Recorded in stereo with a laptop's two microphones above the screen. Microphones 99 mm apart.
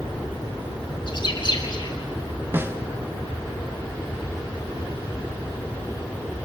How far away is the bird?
About 2 m.